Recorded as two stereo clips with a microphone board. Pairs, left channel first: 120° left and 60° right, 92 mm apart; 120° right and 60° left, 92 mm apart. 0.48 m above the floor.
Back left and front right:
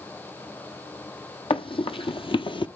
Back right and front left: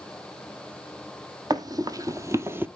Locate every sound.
1.5 s running footsteps: 105° left, 1.3 m; by 2.7 s 125° left, 0.7 m